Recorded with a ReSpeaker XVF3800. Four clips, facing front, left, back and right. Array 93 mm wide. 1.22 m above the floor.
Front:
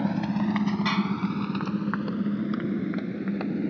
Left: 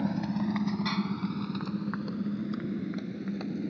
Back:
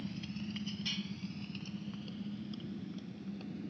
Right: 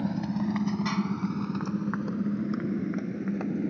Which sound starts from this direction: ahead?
A motorcycle, at 0.0 s.